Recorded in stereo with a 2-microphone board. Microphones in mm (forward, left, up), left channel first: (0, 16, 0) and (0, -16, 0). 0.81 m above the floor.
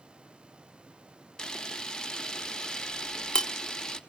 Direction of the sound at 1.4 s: 20° left (ahead or behind).